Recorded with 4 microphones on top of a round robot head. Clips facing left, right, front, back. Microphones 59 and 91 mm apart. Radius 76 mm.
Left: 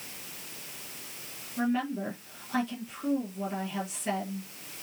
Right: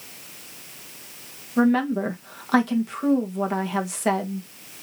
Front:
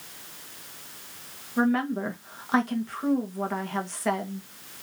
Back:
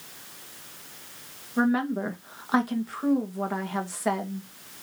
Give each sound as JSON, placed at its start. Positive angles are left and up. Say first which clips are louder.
{"t": 1.6, "sound": "a woman speaking", "louder": "right 10 dB, even", "azimuth_deg": -95, "distance_m": 1.9}